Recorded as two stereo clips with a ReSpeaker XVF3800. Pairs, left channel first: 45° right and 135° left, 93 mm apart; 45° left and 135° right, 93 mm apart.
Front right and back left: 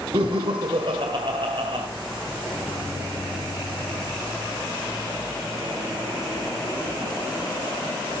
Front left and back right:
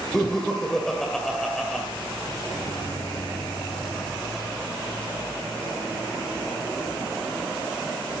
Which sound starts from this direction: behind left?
Laughter, at 0.1 s.